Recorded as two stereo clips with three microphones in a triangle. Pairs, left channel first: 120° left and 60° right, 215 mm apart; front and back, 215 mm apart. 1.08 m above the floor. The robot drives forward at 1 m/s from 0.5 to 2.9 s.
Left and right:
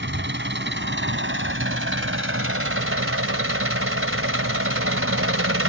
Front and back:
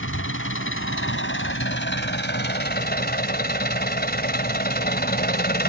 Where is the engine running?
25° right; by 5.7 s 45° right.